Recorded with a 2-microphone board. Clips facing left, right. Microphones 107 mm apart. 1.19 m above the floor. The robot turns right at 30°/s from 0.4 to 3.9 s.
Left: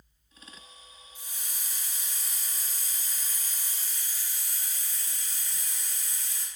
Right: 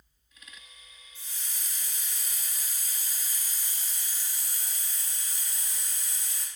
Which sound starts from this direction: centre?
A hiss, at 1.1 s.